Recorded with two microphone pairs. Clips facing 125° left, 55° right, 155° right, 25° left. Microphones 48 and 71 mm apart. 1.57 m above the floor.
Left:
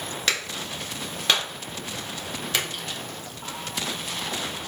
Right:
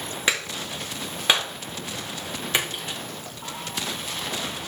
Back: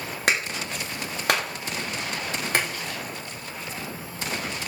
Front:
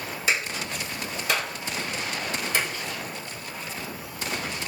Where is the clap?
130° right, 1.8 m.